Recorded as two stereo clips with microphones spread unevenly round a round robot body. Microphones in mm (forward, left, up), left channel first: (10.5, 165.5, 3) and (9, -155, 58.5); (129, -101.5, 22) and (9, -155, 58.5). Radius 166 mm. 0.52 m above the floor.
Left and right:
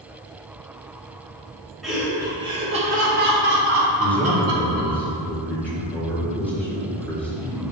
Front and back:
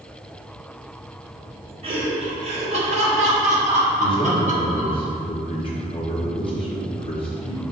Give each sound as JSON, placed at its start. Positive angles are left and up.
{"t": 1.8, "sound": "laughter", "azimuth_deg": 165, "distance_m": 1.4}
{"t": 4.0, "sound": "a man speaking", "azimuth_deg": 10, "distance_m": 1.5}